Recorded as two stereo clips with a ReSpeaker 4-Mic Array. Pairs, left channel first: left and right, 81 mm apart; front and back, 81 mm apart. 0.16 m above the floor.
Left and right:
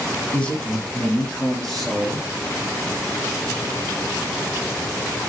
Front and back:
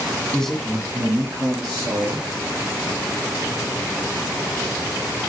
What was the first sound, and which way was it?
A man speaking, 45° left.